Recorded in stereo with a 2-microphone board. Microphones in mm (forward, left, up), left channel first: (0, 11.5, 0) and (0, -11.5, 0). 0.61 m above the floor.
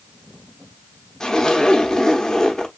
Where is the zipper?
30° left (ahead or behind), 0.7 m.